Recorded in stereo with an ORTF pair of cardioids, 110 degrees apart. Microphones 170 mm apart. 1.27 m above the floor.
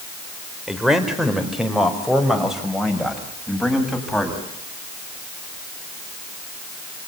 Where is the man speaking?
5° right, 4 m; by 4.4 s straight ahead, 7 m.